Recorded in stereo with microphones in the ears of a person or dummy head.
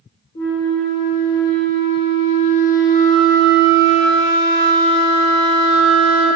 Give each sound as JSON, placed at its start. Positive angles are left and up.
{"t": 0.3, "sound": "a flute", "side_deg": 30, "distance_m": 0.7}